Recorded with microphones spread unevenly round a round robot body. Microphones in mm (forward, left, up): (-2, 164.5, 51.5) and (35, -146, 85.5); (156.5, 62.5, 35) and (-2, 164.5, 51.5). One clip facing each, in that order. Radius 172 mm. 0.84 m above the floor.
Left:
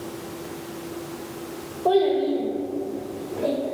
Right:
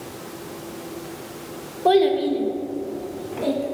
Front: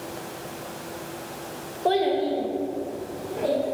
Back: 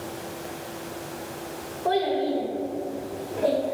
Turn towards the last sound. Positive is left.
turn(degrees=-130)